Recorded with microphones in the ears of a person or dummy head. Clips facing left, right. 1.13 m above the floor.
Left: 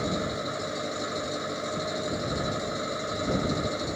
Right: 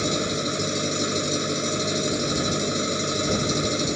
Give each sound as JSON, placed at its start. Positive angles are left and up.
{"t": 0.0, "sound": "an engine running", "side_deg": -40}